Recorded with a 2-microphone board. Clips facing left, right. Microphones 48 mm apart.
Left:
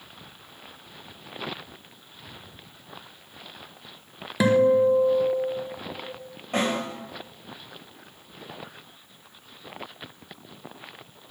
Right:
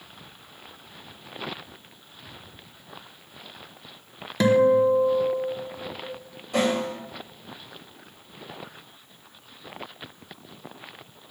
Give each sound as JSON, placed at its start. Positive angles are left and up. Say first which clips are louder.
{"t": 4.4, "sound": "a guitar", "louder": "right 1 dB", "side_deg": 10, "distance_m": 0.7}
{"t": 6.5, "sound": "a snare drum", "louder": "right 2 dB", "side_deg": 45, "distance_m": 4.5}